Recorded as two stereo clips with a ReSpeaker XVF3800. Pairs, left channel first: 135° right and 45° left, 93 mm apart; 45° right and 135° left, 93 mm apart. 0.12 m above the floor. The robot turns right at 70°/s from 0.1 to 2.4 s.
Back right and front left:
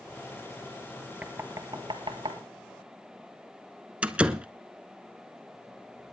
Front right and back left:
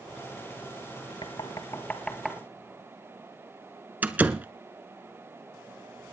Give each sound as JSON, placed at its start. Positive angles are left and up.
{"t": 1.2, "sound": "knocking", "azimuth_deg": -25, "distance_m": 1.5}
{"t": 4.0, "sound": "a door slam", "azimuth_deg": 100, "distance_m": 0.8}